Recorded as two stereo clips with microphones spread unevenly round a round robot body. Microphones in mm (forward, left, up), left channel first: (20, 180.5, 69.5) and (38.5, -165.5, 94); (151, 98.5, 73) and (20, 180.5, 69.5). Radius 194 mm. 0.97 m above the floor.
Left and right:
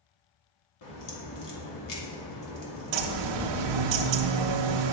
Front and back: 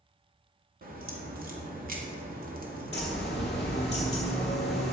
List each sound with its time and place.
0.8 s a crack: 125° left, 2.5 m
2.9 s a bird: 105° right, 0.8 m